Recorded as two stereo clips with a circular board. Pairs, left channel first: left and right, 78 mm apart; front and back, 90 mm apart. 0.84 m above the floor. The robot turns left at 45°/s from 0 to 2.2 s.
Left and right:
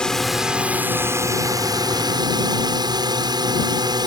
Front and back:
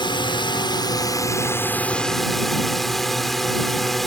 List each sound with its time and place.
0.0 s a drone: 10° left; by 4.1 s 90° right